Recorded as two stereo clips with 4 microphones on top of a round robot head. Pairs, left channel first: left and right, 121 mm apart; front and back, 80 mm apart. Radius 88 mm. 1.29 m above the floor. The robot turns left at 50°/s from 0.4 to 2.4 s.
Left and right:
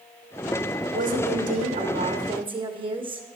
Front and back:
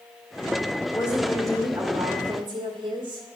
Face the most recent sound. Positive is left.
turn(degrees=-135)